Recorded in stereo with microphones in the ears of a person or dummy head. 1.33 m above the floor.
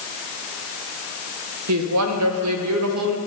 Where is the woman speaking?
80° right, 1.0 m.